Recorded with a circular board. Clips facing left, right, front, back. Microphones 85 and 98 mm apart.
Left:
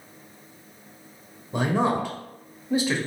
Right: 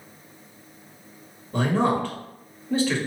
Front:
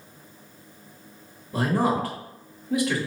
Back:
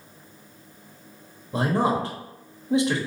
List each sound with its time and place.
1.5 s a man speaking: 150° left, 1.0 m